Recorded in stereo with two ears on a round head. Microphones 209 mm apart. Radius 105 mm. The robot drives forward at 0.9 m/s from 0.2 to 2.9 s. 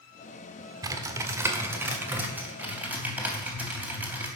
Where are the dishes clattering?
I don't hear dishes clattering.